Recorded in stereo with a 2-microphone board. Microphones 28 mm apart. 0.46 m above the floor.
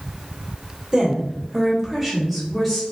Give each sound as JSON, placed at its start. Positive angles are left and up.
{"t": 0.9, "sound": "a woman speaking", "side_deg": -25, "distance_m": 1.2}